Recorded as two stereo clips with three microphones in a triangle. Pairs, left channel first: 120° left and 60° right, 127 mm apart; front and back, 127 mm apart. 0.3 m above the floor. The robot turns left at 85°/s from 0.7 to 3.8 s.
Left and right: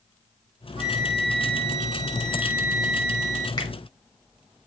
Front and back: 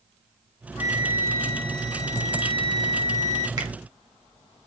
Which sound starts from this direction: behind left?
A finger snap, at 3.6 s.